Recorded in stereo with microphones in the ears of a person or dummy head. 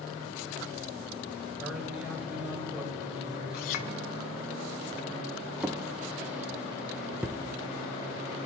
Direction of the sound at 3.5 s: 55° left (ahead or behind).